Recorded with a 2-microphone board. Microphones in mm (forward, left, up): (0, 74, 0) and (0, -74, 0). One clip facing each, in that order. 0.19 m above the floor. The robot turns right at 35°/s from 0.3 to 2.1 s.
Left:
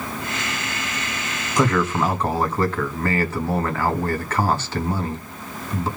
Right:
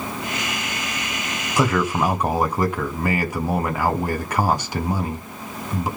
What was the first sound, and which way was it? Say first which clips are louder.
A man speaking: even; 5° right (ahead or behind).